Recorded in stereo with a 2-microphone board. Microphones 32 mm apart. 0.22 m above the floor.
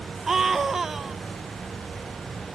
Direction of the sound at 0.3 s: 10° right (ahead or behind).